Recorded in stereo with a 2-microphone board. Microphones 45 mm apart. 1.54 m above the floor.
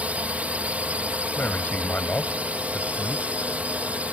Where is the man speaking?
40° left (ahead or behind).